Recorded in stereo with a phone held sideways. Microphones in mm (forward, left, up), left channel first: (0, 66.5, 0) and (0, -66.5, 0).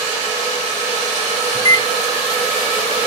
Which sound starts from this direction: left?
A microwave, at 1.6 s.